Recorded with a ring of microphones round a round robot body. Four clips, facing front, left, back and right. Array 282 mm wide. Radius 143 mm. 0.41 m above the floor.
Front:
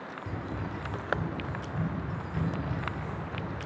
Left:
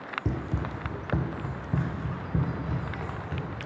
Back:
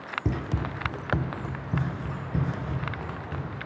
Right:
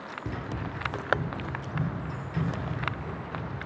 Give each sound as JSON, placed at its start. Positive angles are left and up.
{"t": 0.2, "sound": "running footsteps", "azimuth_deg": 155, "distance_m": 0.7}